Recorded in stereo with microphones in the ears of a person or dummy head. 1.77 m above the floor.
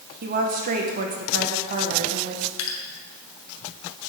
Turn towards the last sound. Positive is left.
turn(degrees=85)